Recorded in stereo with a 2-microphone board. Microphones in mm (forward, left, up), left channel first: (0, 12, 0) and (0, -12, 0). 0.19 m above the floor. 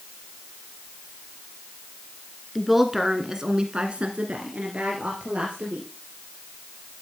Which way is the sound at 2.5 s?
5° right (ahead or behind).